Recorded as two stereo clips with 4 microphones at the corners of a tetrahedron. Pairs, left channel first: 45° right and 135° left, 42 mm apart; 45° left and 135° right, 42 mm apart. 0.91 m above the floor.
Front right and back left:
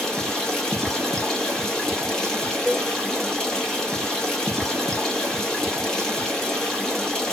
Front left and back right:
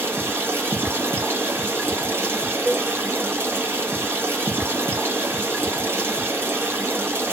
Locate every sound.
0.0 s running water: 125° right, 1.0 m
2.6 s a cowbell: 120° right, 1.5 m